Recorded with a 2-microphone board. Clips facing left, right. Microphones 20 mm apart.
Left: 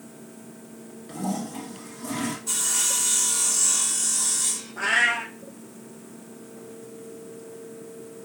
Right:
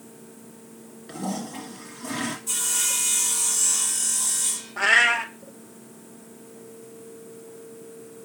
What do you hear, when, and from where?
1.1 s a toilet flushing: 15° right (ahead or behind), 1.3 m
2.5 s sawing: 25° left (ahead or behind), 1.2 m
4.8 s a cat meowing: 30° right (ahead or behind), 0.6 m